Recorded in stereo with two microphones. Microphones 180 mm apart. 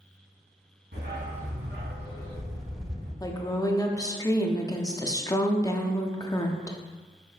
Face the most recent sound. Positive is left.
turn(degrees=20)  # may be behind; listen again after turning